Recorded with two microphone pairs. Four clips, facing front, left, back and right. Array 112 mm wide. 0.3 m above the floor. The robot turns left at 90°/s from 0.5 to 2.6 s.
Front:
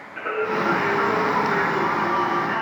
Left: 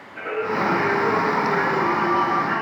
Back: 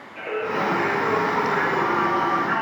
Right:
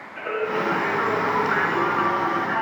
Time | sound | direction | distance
0.2 | singing | 15° left | 2.5 m